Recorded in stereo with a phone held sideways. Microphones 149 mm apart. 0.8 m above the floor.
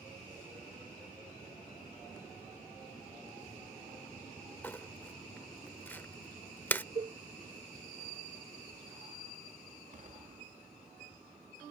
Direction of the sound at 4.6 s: 10° left (ahead or behind).